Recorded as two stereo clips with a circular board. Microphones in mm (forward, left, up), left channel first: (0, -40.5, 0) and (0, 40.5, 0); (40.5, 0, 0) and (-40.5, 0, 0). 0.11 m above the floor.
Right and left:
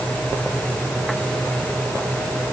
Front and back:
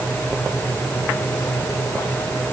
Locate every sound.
Only background noise.